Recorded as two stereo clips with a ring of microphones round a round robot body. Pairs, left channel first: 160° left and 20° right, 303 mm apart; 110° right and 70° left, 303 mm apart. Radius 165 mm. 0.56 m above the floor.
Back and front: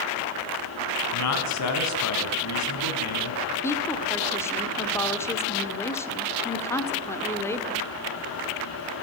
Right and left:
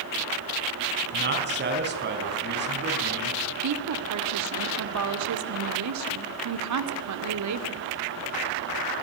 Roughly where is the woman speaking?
Left.